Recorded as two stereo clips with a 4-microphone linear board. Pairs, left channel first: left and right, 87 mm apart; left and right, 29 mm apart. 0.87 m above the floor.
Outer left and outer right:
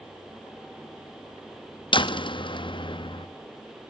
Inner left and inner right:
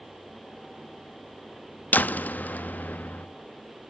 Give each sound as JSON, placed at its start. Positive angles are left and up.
{"t": 1.9, "sound": "a door slam", "side_deg": 75, "distance_m": 0.6}